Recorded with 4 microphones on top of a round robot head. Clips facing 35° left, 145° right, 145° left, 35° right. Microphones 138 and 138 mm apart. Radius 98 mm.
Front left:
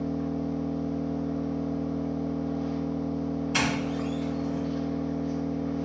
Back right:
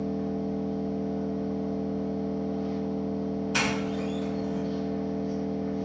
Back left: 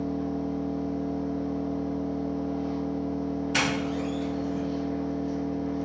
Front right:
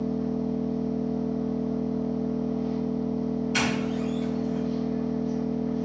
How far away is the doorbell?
About 1.9 m.